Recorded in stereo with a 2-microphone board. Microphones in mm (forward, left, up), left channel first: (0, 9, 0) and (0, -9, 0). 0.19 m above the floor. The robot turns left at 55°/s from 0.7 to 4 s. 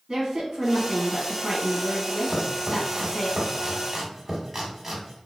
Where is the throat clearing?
I don't hear throat clearing.